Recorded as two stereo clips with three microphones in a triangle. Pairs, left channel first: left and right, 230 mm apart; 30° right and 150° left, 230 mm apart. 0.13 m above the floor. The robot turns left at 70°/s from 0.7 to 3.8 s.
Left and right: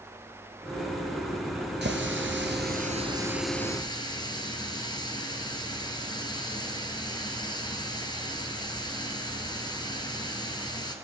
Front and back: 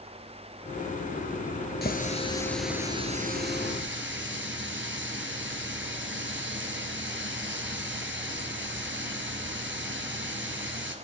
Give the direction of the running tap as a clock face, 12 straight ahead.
2 o'clock.